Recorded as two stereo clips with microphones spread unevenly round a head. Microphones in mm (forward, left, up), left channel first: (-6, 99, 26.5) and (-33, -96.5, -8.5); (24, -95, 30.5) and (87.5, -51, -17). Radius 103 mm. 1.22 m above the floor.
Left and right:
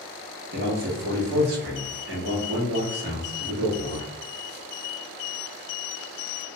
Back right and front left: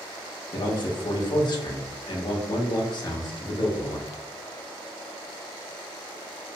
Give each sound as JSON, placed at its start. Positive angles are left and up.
{"t": 0.5, "sound": "a man speaking", "azimuth_deg": -100, "distance_m": 1.1}